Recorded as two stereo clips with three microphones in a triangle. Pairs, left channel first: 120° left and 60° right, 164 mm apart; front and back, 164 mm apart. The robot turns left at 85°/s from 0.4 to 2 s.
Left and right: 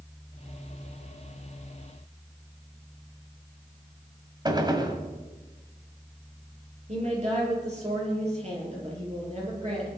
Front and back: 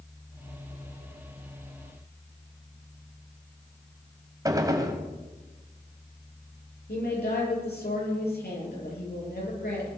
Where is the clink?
No clink in this recording.